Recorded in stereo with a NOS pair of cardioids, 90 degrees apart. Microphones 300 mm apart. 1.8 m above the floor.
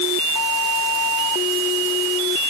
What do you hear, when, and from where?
Only background noise.